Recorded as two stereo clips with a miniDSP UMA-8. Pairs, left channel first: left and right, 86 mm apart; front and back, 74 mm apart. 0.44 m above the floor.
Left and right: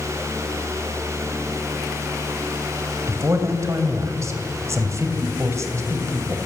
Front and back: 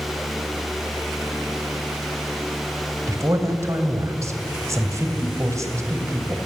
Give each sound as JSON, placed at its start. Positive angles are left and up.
{"t": 3.1, "sound": "a man speaking", "azimuth_deg": -140, "distance_m": 3.0}